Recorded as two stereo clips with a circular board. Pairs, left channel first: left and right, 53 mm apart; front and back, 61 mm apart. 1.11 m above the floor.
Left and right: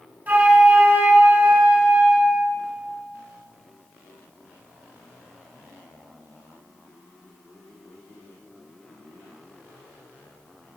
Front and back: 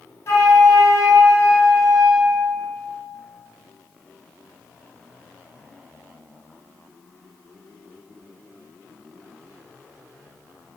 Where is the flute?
35° right, 2.5 m.